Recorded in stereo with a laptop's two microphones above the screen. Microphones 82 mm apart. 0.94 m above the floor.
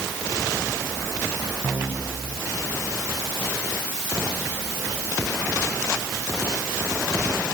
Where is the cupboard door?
I don't hear a cupboard door.